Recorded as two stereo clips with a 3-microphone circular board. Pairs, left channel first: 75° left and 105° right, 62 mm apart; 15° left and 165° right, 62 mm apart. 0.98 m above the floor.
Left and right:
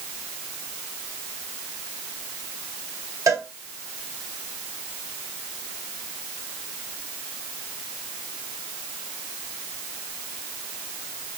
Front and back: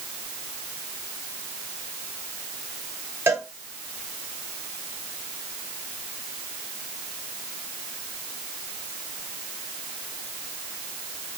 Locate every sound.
3.3 s a cowbell: 120° right, 3.5 m